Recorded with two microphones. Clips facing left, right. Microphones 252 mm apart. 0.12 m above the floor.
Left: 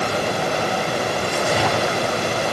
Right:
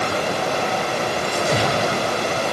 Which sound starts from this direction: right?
A splash, at 1.2 s.